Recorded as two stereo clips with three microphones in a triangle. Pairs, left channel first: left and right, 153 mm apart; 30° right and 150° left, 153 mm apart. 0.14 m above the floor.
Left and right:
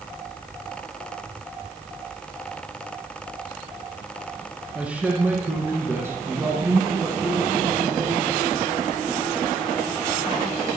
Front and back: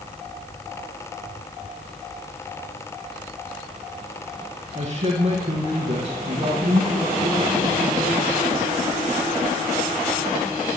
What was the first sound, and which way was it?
A man speaking, 170° right.